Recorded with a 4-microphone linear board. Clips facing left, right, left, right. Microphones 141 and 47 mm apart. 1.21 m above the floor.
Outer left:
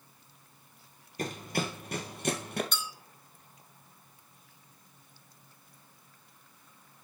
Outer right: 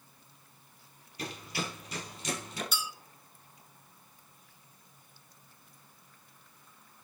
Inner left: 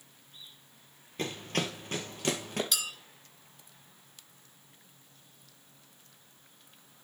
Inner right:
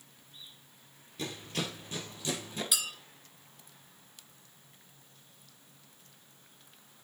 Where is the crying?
I don't hear crying.